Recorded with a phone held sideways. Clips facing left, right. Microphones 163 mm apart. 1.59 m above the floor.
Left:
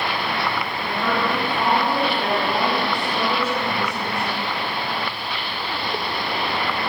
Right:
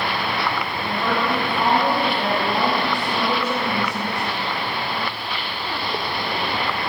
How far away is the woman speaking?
About 2.0 m.